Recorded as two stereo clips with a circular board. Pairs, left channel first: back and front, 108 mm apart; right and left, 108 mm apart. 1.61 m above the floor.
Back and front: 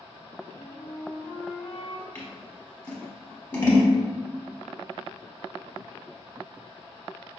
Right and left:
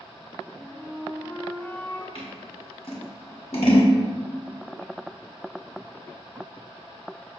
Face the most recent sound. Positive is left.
turn(degrees=-110)